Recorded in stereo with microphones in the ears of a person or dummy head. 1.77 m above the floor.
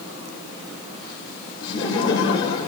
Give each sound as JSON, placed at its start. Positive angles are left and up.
{"t": 1.6, "sound": "laughter", "side_deg": 20, "distance_m": 7.5}